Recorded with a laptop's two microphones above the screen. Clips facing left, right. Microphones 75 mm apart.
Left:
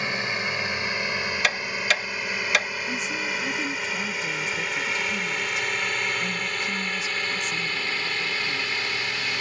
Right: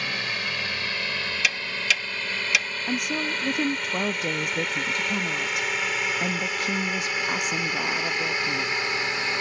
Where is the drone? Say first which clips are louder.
Left 2 dB; 20° left (ahead or behind); by 9.4 s 25° right (ahead or behind).